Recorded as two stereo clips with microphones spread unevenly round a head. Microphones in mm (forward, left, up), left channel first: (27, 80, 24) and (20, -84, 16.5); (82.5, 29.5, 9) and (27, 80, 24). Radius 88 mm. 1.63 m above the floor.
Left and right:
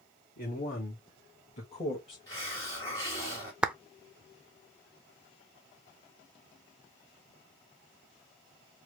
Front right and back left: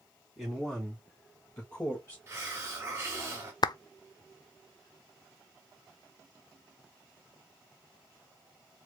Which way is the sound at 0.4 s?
55° left.